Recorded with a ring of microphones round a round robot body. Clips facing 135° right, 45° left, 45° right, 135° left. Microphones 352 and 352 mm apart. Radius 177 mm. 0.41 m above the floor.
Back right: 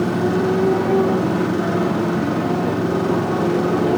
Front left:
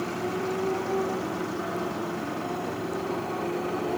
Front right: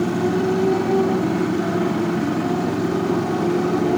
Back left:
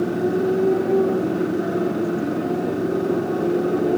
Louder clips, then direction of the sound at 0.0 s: Back right 12 dB, even; 115° right.